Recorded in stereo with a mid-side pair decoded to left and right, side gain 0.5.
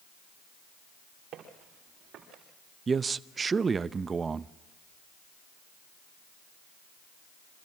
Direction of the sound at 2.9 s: 35° right.